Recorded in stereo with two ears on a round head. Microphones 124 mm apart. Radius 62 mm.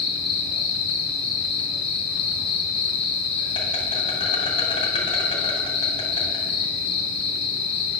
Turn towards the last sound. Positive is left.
turn(degrees=40)  # may be behind; listen again after turning